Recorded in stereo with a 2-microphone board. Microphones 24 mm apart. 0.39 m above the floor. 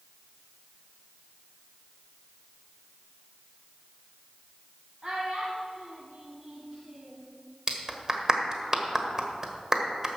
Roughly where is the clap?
Right.